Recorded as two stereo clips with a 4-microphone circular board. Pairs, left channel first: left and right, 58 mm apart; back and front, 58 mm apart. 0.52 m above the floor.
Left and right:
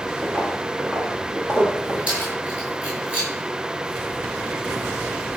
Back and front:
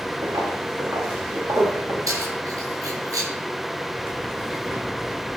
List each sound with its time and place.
0.2 s footsteps: 25° right, 3.5 m; by 2.0 s 35° right, 6 m
2.1 s keys jangling: 30° right, 7.5 m